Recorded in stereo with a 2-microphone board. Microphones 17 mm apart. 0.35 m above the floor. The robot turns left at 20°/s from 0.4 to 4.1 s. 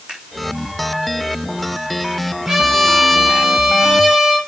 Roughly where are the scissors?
Right.